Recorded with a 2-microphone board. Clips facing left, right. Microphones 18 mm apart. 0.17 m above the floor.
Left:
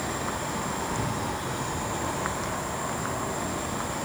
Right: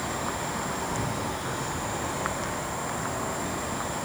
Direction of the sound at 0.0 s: 25° right (ahead or behind).